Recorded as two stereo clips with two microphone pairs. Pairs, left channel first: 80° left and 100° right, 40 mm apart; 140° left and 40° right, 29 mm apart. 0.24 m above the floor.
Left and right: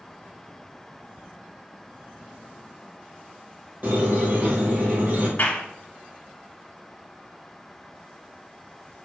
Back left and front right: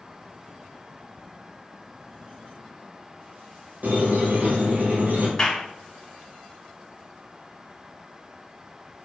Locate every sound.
3.8 s a squeak: 60° right, 1.5 m
5.4 s a clap: 90° left, 1.2 m